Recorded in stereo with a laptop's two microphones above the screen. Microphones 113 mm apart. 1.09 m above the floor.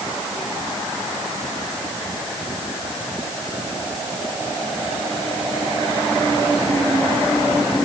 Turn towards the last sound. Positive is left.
No sound to turn to.